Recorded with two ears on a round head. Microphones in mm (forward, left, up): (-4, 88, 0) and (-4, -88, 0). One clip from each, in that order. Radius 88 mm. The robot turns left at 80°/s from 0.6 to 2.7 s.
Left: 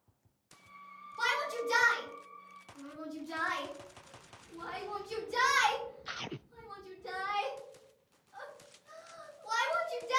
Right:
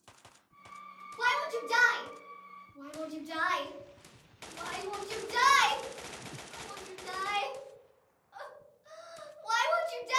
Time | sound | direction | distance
1.2 | a shout | 35° left (ahead or behind) | 1.0 m